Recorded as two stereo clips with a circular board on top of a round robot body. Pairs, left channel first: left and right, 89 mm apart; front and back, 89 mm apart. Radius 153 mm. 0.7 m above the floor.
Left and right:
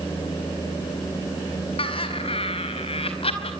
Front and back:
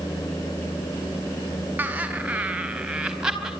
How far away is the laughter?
About 4 m.